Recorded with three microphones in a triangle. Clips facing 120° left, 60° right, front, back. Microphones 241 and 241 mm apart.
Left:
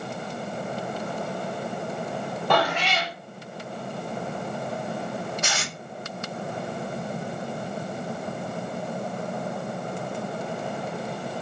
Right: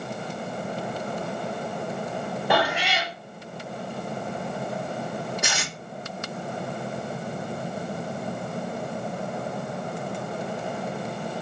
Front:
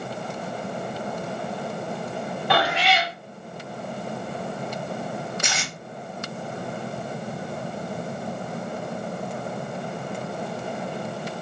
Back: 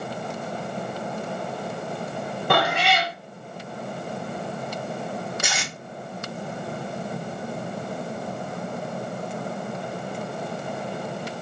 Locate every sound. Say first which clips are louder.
2.5 s a cat meowing: left 1 dB, back 1 dB; 140° right, 0.6 m
5.4 s tape being pulled: even, even; 110° right, 1.1 m